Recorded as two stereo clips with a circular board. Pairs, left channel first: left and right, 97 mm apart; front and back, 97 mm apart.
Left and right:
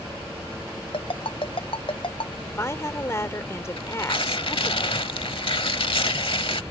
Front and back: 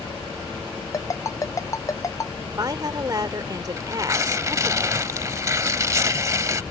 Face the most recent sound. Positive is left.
turn(degrees=120)